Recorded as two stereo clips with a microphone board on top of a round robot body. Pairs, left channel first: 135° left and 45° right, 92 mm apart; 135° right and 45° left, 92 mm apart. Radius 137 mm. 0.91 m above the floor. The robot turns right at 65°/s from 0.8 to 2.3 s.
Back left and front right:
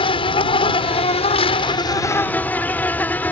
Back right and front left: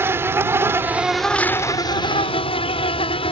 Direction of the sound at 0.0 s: 110° left.